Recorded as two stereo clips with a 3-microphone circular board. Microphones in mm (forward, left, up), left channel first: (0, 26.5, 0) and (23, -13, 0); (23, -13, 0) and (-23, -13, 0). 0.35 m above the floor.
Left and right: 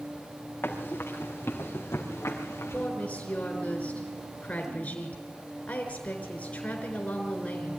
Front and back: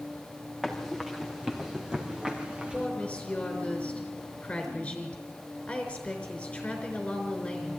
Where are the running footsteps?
90° left, 4.5 m; by 2.9 s 110° left, 4.5 m.